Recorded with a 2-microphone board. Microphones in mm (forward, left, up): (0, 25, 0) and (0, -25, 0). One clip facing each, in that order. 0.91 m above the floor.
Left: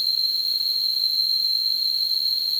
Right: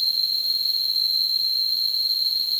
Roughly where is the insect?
Centre.